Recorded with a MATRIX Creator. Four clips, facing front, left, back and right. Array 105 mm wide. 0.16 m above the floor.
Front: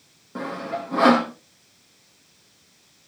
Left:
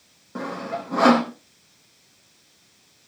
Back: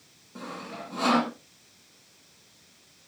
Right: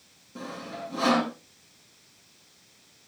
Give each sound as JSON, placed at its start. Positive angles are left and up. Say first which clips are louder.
{"t": 0.3, "sound": "sawing", "louder": "left 8 dB, front 9 dB", "azimuth_deg": 55, "distance_m": 4.0}